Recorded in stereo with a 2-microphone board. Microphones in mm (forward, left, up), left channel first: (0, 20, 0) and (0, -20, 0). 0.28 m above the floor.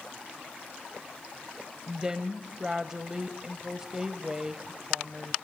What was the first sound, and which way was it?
A woman speaking, 15° right (ahead or behind).